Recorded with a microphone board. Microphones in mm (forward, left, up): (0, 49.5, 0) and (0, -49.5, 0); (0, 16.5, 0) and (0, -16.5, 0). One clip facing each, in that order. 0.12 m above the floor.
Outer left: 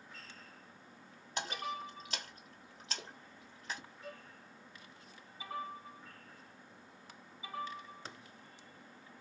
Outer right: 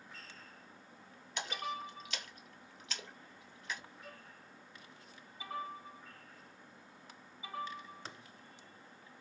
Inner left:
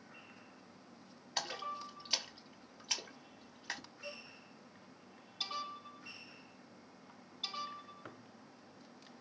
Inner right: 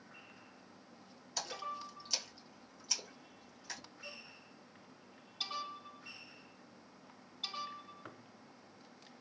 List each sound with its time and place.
1.4 s a splash: 35° left (ahead or behind), 1.5 m
4.0 s a violin: 25° left (ahead or behind), 2 m